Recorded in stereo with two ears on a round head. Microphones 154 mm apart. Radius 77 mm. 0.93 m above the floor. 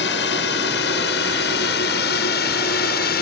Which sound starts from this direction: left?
A drone, at 0.0 s.